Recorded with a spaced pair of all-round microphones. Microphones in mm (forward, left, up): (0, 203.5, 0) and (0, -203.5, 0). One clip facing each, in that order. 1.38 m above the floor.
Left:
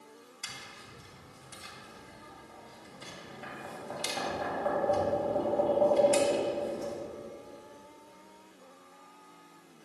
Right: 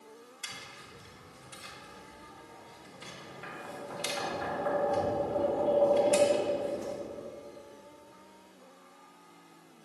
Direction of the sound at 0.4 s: 55° left (ahead or behind).